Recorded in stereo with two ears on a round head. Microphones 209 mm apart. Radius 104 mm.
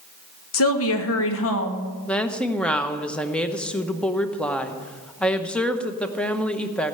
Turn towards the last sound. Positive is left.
turn(degrees=5)  # may be behind; listen again after turning